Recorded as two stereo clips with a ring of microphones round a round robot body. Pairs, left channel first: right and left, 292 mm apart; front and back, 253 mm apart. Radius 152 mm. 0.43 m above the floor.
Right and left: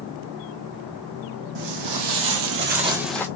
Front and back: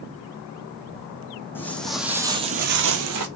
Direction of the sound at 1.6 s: 80° left.